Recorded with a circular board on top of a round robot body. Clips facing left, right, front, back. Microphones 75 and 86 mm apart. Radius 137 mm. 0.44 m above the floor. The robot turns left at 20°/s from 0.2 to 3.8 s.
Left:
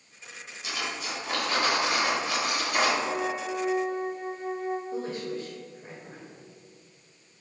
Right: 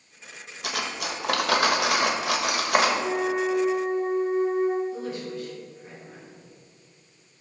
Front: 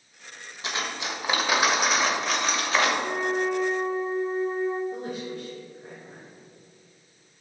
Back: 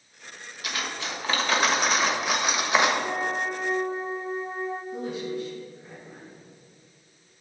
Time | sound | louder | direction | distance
0.6 | cutlery clinking | right 3 dB, front 1 dB | 65° right | 1.3 m
3.0 | a flute | right 5 dB, front 2 dB | 80° right | 3 m
4.9 | a woman speaking | even, back 2 dB | 40° left | 2.5 m